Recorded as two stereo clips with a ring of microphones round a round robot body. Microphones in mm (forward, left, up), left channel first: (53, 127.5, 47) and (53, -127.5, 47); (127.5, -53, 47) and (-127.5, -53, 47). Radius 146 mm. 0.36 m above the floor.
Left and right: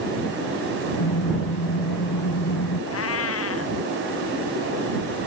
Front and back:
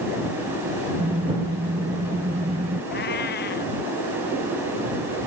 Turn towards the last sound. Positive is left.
turn(degrees=60)